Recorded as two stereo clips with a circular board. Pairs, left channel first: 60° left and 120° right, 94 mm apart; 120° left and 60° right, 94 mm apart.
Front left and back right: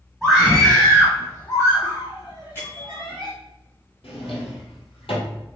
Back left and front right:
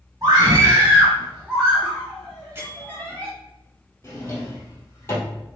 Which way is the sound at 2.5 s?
Straight ahead.